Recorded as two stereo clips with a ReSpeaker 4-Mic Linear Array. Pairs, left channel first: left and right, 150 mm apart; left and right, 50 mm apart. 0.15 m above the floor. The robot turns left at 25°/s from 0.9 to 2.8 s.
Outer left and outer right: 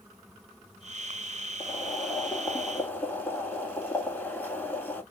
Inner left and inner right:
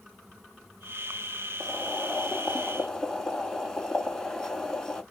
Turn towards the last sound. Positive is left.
turn(degrees=15)  # may be behind; listen again after turning